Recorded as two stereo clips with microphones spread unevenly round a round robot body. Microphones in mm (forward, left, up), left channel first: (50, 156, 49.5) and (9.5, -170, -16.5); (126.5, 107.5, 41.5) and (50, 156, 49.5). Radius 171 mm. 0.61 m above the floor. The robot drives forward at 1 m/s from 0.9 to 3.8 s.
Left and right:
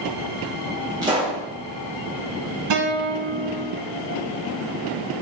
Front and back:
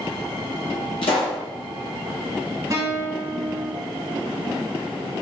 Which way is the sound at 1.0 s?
20° right.